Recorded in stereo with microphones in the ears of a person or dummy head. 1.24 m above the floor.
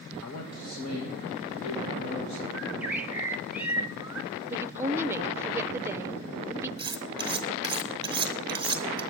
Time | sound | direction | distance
0.2 | a man speaking | 70° left (ahead or behind) | 1.6 m
2.5 | a bird | 5° right (ahead or behind) | 1.0 m
4.5 | a woman speaking | 10° right (ahead or behind) | 0.6 m
6.8 | cutlery clinking | 30° right (ahead or behind) | 0.9 m